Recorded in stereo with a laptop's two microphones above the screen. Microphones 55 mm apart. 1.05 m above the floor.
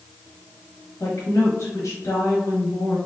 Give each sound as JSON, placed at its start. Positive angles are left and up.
{"t": 1.0, "sound": "a woman speaking", "side_deg": 80, "distance_m": 1.5}